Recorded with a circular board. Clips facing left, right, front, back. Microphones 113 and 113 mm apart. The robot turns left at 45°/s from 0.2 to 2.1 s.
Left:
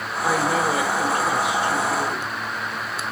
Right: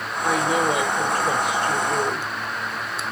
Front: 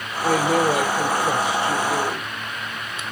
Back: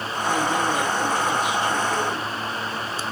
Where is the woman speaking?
5° left, 2.5 m; by 2.3 s 80° right, 2.5 m.